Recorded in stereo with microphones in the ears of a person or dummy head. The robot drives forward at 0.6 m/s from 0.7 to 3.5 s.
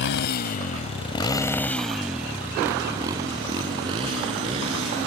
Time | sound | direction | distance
0.0 | a motorcycle | 70° left (ahead or behind) | ?